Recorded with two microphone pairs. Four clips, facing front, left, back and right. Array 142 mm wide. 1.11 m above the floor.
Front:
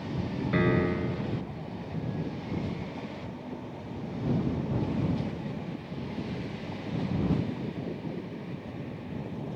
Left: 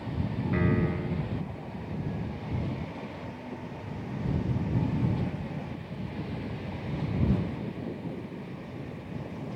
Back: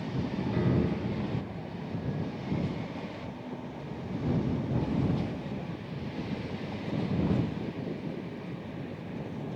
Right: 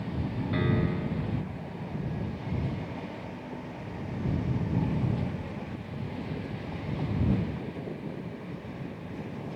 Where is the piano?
5° right.